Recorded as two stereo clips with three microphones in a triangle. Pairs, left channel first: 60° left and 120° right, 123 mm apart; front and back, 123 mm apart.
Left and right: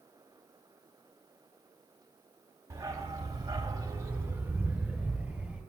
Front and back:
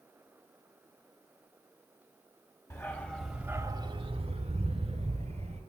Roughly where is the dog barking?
Ahead right.